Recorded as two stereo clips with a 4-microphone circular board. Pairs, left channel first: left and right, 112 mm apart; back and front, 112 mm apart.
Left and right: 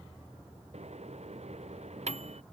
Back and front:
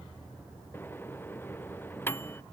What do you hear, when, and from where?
0.7 s a microwave: 110° right